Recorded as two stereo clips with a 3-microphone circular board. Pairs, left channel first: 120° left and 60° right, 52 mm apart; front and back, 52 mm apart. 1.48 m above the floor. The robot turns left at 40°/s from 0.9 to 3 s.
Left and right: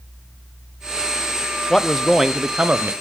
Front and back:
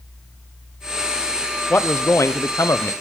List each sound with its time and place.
1.7 s a man speaking: 40° left, 0.6 m; by 2.9 s 5° right, 0.6 m